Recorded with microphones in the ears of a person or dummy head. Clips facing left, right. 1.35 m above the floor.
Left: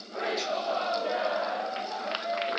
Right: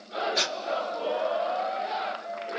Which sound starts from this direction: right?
Breathing, at 0.3 s.